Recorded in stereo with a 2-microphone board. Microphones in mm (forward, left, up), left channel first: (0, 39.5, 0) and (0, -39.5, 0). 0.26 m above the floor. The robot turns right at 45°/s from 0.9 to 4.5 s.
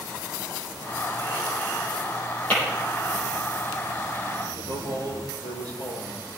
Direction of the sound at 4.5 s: 75° left (ahead or behind).